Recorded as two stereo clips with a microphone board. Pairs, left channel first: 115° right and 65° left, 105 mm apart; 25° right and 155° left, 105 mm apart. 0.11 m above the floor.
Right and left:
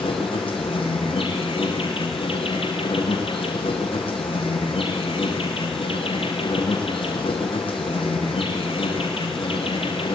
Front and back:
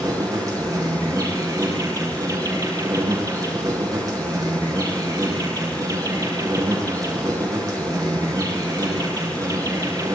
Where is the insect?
150° right, 9.5 m.